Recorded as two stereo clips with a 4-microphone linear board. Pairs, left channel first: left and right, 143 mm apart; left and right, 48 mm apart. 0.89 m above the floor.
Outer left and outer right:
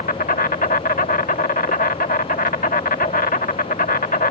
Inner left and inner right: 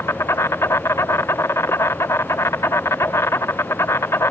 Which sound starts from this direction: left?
An insect, at 0.0 s.